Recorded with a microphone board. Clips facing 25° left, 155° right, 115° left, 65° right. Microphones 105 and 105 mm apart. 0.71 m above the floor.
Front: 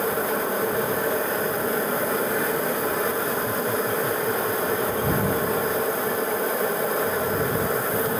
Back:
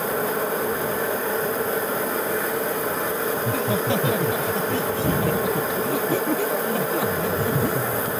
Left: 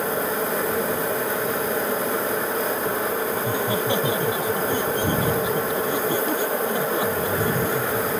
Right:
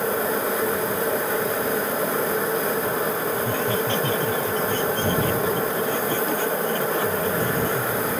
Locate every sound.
3.4 s laughter: 170° right